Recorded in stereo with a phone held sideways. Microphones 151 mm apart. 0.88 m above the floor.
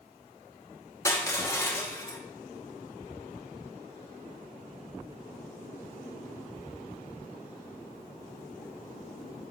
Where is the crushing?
20° left (ahead or behind), 1.0 m.